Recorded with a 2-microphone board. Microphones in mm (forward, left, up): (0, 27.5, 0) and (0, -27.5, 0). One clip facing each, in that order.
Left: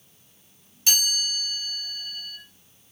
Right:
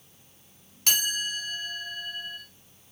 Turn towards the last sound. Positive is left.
turn(degrees=-55)  # may be behind; listen again after turning